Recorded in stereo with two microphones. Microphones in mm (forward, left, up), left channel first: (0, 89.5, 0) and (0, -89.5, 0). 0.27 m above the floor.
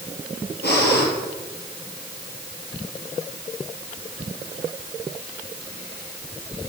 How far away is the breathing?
About 4.5 m.